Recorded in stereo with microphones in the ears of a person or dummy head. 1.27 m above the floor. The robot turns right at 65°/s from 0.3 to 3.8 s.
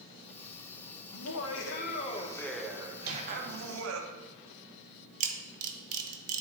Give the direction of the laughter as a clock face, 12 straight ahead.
9 o'clock.